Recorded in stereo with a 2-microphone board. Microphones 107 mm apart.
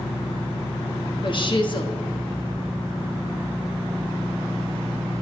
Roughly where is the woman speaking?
Left.